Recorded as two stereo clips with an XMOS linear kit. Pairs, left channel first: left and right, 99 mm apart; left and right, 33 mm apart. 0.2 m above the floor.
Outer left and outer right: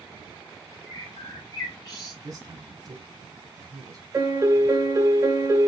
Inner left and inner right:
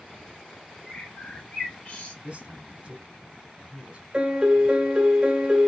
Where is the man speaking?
40° right (ahead or behind), 1.4 m.